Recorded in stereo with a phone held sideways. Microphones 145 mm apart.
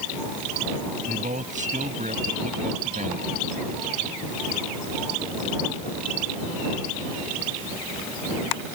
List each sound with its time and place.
1.1 s a man speaking: 60° right (ahead or behind)